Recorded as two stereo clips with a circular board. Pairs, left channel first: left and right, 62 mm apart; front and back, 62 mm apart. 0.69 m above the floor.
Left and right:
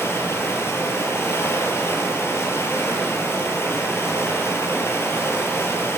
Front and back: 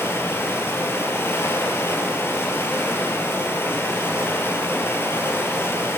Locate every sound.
0.0 s running water: 45° left, 4.5 m